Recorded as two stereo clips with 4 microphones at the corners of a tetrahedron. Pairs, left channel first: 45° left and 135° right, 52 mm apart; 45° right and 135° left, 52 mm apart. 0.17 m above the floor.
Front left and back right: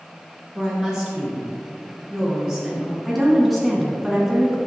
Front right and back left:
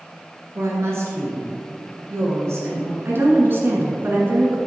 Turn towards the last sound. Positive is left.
turn(degrees=140)